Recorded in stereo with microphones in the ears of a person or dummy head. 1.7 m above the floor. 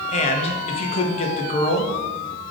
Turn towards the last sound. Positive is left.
turn(degrees=40)  # may be behind; listen again after turning